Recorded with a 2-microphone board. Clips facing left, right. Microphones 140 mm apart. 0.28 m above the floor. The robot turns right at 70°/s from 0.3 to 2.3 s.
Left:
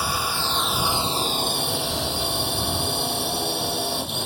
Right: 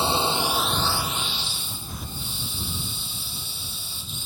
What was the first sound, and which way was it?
A drone, 25° right (ahead or behind).